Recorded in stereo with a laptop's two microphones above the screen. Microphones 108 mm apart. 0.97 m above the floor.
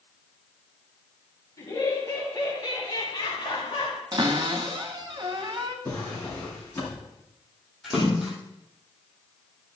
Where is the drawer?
15° left (ahead or behind), 6.5 m.